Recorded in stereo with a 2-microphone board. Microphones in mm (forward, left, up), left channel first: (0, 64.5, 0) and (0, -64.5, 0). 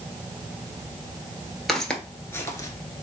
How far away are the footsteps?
About 0.9 m.